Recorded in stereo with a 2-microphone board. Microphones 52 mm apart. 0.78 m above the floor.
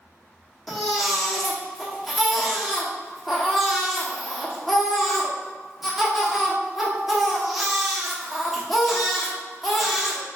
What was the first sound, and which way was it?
A baby crying, centre (ahead or behind).